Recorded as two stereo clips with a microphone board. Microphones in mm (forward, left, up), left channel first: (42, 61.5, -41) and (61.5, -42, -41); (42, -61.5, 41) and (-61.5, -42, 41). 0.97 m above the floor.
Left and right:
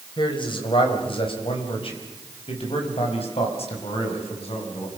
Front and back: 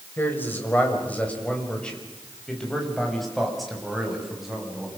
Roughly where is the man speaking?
Ahead left.